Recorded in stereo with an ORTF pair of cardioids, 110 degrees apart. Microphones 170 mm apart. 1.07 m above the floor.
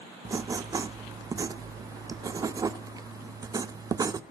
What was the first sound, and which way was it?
Writing, 20° right.